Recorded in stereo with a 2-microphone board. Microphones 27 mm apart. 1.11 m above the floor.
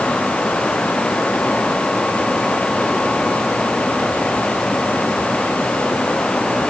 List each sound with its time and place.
Only background noise.